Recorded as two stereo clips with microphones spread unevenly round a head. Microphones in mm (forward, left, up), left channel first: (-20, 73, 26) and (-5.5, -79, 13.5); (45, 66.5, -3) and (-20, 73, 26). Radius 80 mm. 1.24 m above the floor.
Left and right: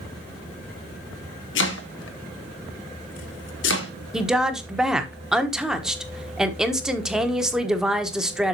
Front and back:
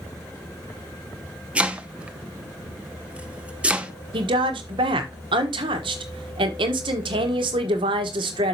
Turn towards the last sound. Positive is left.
turn(degrees=-170)